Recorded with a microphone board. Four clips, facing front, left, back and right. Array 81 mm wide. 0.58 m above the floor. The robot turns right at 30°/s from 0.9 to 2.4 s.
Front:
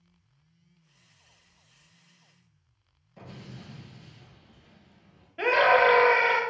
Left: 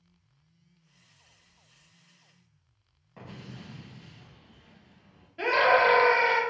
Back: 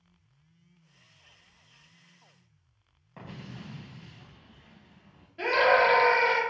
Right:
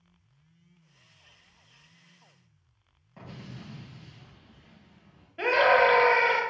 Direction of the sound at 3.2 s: 175° left.